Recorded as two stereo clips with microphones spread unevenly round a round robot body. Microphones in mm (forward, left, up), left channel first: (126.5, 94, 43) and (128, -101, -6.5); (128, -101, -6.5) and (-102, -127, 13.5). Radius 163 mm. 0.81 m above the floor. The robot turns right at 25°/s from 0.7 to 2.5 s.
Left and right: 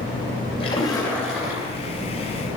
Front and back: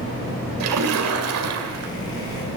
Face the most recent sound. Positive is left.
turn(degrees=-150)